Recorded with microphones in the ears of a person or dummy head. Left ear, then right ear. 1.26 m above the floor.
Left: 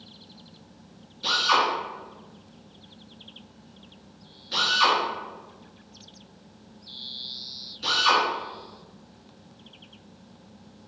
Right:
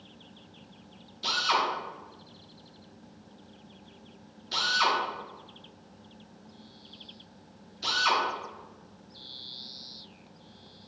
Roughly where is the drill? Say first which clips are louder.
Left 5 dB; right.